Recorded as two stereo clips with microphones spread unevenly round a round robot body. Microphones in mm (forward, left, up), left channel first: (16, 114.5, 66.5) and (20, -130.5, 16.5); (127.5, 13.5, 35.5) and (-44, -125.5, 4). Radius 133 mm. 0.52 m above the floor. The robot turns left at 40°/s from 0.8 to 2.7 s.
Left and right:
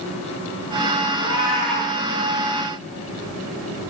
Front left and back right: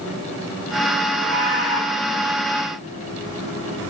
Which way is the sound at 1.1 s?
165° left.